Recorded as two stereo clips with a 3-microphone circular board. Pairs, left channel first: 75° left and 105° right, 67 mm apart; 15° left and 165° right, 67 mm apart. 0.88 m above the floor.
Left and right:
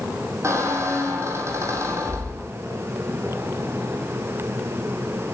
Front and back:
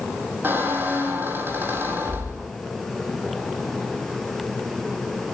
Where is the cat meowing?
No cat meowing in this recording.